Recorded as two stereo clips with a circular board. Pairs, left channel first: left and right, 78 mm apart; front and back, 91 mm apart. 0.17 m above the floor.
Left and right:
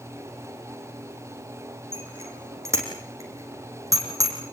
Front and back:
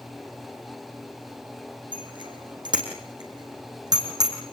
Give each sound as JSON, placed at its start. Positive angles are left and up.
{"t": 1.9, "sound": "a bicycle bell", "azimuth_deg": -150, "distance_m": 5.5}